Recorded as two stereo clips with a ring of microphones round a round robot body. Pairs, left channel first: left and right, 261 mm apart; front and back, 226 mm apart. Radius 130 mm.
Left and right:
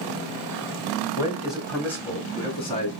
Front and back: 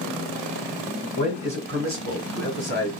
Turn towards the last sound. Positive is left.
turn(degrees=155)